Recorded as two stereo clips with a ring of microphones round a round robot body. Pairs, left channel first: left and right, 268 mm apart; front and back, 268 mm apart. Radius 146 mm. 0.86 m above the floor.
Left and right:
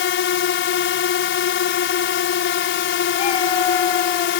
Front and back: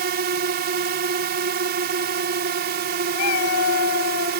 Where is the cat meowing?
20° left.